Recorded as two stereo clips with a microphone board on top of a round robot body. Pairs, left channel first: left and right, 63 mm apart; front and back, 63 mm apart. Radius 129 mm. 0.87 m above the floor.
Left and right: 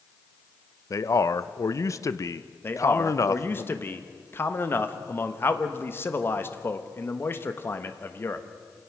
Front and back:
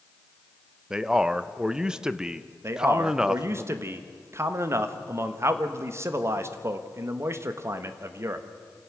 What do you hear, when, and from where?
0.9 s a man speaking: 105° left, 0.9 m
2.6 s a man speaking: 140° left, 1.4 m